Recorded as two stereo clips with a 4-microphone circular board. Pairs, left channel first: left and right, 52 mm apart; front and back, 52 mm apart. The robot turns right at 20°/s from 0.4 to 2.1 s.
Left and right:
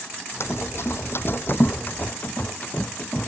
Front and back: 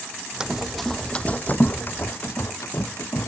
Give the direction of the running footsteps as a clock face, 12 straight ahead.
8 o'clock.